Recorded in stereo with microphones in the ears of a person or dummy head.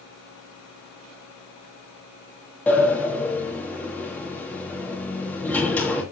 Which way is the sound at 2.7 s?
15° left (ahead or behind).